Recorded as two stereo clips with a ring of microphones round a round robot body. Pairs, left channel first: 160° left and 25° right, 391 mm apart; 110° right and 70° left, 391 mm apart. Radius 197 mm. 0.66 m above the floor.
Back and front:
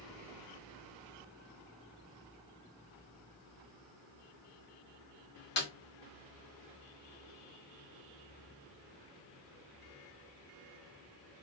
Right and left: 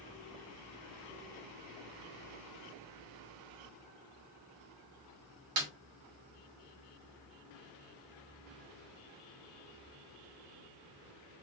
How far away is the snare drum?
About 1.5 m.